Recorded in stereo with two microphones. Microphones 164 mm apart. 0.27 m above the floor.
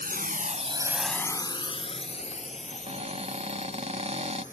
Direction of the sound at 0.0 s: 65° right (ahead or behind).